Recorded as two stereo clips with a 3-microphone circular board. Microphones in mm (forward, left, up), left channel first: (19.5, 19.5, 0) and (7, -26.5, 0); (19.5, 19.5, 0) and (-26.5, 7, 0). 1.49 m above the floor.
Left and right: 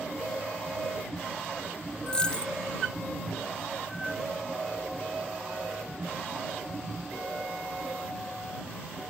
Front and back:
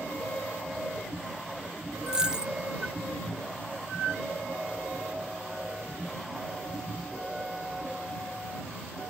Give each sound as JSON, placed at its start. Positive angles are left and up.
{"t": 2.1, "sound": "a dropped coin", "azimuth_deg": 135}